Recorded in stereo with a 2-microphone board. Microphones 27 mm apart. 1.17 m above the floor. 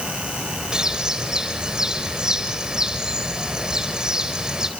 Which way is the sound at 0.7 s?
25° right (ahead or behind).